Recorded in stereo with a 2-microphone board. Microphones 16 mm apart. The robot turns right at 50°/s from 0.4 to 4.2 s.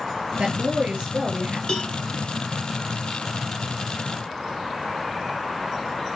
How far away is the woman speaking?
About 3 m.